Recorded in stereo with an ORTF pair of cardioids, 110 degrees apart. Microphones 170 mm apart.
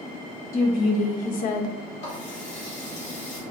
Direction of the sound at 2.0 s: 45° left.